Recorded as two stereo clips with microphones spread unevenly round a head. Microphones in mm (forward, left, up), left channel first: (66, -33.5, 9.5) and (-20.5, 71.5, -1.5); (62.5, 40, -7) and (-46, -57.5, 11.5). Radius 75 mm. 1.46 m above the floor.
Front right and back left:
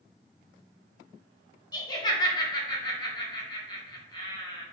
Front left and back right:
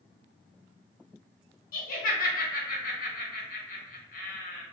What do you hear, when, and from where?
1.7 s laughter: 10° left, 0.9 m